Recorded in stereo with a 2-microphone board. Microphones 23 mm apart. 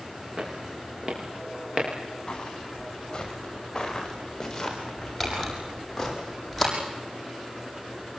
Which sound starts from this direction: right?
Footsteps, at 0.4 s.